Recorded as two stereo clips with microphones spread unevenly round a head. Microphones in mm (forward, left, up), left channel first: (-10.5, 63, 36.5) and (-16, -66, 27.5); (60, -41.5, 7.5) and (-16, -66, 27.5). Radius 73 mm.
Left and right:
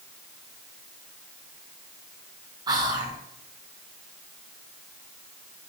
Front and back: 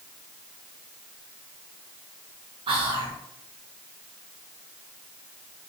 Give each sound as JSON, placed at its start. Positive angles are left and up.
{"t": 2.7, "sound": "whispering", "azimuth_deg": -150, "distance_m": 0.9}